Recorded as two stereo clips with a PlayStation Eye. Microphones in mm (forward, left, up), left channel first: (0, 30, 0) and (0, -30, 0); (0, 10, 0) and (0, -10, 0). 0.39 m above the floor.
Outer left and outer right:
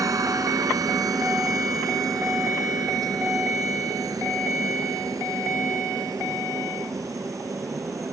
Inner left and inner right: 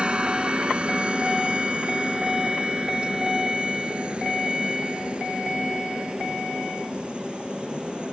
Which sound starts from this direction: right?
A helicopter, at 0.0 s.